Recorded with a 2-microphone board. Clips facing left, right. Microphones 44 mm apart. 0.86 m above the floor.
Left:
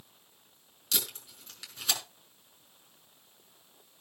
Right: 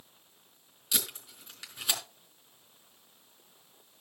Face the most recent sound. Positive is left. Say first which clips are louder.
# even
turn(degrees=-10)  # may be behind; listen again after turning